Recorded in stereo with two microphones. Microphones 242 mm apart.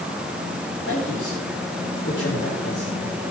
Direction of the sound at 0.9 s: 50° left (ahead or behind).